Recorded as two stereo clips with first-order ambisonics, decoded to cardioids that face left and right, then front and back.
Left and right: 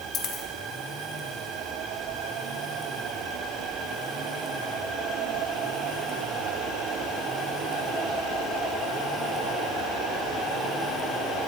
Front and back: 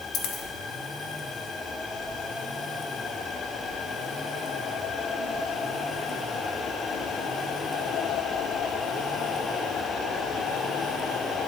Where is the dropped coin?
40° left, 1.3 m.